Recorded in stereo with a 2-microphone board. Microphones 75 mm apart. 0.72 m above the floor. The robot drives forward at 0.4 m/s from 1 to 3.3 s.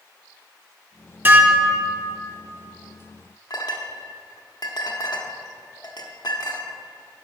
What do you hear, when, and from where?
1.2 s dishes clattering: 30° right (ahead or behind), 1.0 m; by 2.1 s 20° right (ahead or behind), 1.3 m
3.5 s a clink: 65° left (ahead or behind), 1.1 m